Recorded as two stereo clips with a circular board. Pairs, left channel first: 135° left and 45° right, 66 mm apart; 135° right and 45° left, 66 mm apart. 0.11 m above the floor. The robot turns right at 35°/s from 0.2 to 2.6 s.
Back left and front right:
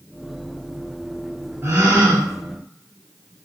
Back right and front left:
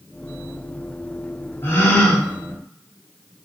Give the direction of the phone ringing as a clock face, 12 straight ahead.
I don't hear a phone ringing.